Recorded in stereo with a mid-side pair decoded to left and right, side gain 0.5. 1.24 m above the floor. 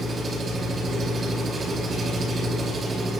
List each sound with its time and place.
0.0 s an engine running: 40° right, 5 m